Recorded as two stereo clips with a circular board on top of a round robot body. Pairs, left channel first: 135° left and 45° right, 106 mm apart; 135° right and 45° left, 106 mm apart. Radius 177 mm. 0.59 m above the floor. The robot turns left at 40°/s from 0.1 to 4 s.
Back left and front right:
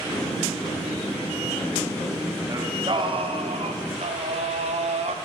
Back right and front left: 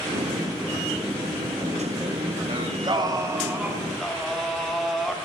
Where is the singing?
15° left, 1.5 m; by 5.2 s 45° right, 1.5 m.